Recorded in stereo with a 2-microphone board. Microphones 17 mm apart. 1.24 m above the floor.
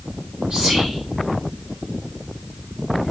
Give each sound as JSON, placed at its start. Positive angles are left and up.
{"t": 0.5, "sound": "whispering", "side_deg": -65, "distance_m": 1.4}